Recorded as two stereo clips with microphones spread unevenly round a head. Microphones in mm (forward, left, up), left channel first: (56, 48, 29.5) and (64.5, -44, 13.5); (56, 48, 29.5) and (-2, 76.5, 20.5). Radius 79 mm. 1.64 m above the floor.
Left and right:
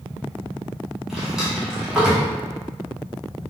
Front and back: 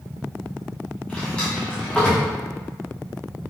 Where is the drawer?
15° left, 0.9 m.